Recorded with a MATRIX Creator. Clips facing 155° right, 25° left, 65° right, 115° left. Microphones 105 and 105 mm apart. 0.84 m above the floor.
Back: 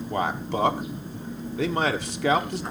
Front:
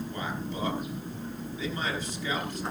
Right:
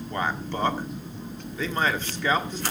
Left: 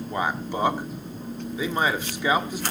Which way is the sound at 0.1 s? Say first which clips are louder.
Back 8 dB, left 1 dB; 170° right.